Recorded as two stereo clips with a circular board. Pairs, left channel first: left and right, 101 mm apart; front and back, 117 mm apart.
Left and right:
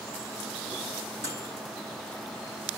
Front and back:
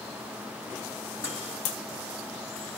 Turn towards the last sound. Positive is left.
turn(degrees=100)